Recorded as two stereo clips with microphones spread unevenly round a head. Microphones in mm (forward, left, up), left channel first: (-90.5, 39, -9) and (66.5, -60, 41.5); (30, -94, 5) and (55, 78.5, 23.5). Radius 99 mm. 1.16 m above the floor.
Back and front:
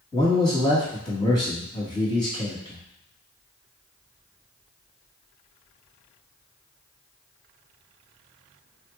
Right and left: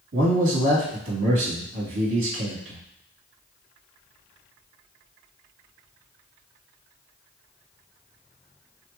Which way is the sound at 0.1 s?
85° left.